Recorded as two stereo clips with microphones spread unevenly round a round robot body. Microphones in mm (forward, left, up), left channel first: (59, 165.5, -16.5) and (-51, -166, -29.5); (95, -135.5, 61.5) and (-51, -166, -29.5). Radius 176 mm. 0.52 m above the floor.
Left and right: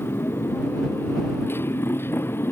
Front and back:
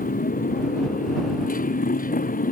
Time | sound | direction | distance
0.0 | a motorcycle | 15° right | ?